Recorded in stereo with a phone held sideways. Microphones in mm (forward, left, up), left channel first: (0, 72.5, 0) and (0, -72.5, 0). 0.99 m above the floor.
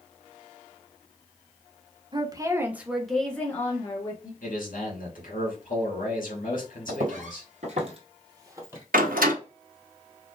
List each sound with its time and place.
2.1 s a woman speaking: 30° right (ahead or behind), 0.9 m; by 4.3 s 25° left (ahead or behind), 1.3 m
4.4 s a man speaking: 70° left (ahead or behind), 2 m
6.9 s footsteps: 65° right (ahead or behind), 2 m; by 8.8 s 15° right (ahead or behind), 1.5 m
8.9 s a door slam: 80° right, 1.2 m